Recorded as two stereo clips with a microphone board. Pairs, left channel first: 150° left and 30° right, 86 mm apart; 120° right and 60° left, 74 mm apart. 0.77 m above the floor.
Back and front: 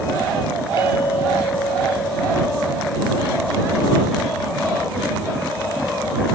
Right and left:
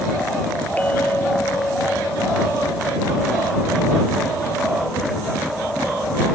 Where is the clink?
170° left.